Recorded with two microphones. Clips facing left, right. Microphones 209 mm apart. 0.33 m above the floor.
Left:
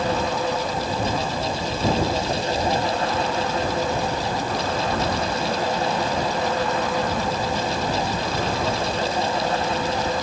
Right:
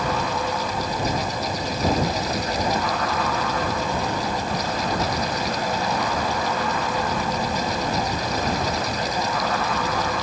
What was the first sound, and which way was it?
Only background noise.